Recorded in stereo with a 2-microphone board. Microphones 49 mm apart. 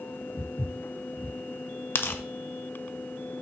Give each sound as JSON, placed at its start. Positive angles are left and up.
{"t": 0.4, "sound": "footsteps", "side_deg": 70, "distance_m": 3.5}
{"t": 1.9, "sound": "tearing paper", "side_deg": 45, "distance_m": 0.9}